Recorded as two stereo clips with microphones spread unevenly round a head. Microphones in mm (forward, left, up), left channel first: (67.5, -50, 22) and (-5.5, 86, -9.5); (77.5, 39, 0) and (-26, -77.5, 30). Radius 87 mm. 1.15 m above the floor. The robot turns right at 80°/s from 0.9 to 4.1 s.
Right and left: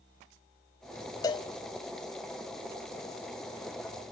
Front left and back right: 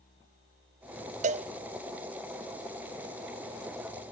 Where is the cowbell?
120° right, 0.5 m; by 1.5 s 100° right, 0.5 m.